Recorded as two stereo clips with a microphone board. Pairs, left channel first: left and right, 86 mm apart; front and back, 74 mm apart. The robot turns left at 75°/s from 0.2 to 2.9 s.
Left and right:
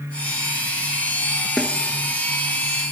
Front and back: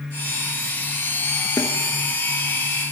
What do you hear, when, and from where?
1.6 s a snare drum: 5° left, 1.0 m; by 1.7 s 5° right, 1.0 m